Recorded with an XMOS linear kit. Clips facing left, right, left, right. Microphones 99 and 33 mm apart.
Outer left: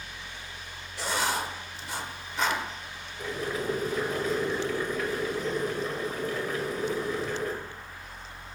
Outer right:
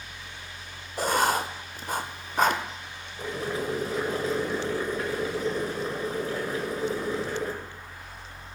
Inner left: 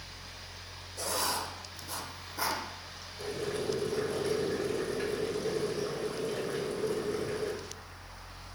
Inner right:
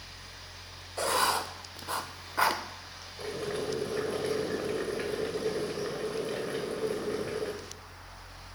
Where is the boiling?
30° right (ahead or behind), 1.6 m.